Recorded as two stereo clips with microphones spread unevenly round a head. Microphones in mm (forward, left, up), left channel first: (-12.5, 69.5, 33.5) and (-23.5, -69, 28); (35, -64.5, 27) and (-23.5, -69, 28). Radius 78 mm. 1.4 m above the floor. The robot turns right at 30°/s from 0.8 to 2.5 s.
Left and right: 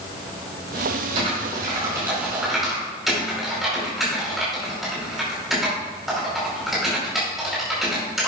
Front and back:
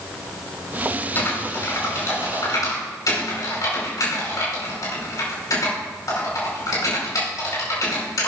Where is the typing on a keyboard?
45° right, 5 m; by 8.3 s 5° right, 5 m.